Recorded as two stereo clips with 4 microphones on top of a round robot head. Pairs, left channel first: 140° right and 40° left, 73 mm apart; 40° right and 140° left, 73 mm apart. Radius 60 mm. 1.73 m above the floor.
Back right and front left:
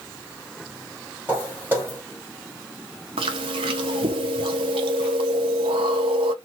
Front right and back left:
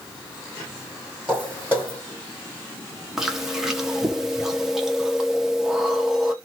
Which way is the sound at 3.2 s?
55° left.